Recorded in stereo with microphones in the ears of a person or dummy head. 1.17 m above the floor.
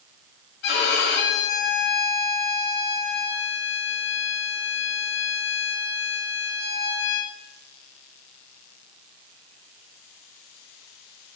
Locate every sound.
0.6 s a violin: 65° left (ahead or behind), 0.9 m